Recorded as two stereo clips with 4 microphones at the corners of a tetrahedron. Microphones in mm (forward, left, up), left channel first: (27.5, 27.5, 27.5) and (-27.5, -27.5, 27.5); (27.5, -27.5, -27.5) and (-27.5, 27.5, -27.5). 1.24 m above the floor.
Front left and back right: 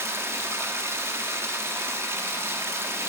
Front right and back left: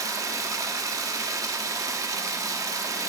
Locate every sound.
0.0 s running water: 175° left, 1.1 m